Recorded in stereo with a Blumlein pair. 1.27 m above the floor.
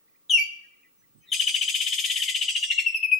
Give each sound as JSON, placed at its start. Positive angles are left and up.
{"t": 0.3, "sound": "a bird", "azimuth_deg": 20, "distance_m": 1.2}